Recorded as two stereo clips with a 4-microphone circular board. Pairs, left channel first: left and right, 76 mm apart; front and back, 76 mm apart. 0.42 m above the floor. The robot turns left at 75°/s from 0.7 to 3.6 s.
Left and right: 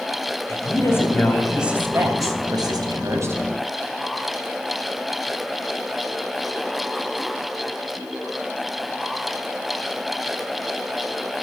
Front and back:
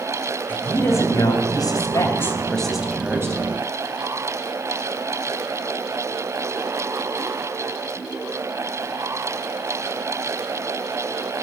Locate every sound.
0.5 s a woman speaking: 60° left, 3 m; by 3.4 s 145° right, 3 m